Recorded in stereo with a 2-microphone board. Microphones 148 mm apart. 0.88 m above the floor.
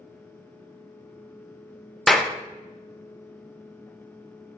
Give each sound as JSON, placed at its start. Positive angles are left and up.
{"t": 2.1, "sound": "a clap", "side_deg": 0, "distance_m": 0.6}